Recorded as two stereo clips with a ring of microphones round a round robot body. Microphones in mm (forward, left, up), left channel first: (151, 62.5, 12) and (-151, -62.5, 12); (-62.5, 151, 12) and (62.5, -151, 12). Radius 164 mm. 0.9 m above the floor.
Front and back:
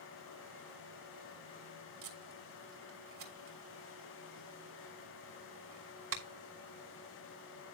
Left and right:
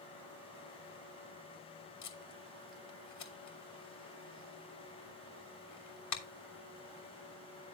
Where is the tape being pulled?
155° left, 3 m.